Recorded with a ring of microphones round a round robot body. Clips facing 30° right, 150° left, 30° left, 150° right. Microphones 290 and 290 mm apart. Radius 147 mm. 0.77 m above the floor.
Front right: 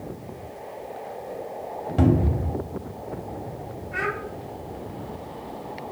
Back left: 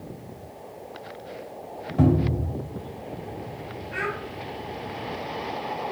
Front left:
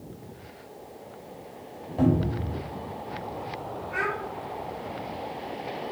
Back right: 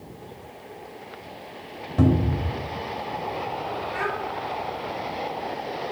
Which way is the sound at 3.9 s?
90° left.